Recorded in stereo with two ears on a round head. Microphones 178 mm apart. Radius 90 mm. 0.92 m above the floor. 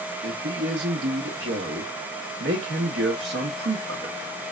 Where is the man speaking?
55° right (ahead or behind), 0.9 m.